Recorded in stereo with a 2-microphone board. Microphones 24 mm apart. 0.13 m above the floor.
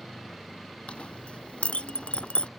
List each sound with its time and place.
0.9 s a clink: 55° left (ahead or behind)